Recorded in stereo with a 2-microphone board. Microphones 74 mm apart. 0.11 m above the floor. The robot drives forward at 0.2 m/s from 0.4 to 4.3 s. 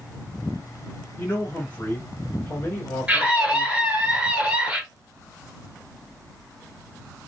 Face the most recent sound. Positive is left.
turn(degrees=-15)  # may be behind; listen again after turning